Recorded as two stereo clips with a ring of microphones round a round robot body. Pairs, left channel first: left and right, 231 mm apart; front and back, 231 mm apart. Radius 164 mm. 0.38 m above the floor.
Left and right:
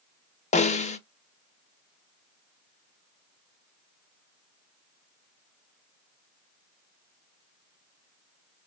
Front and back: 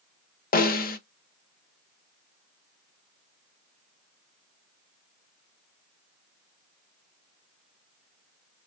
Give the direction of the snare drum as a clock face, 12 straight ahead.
11 o'clock.